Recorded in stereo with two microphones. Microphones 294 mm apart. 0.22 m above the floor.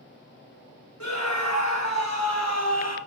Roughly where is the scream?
Left.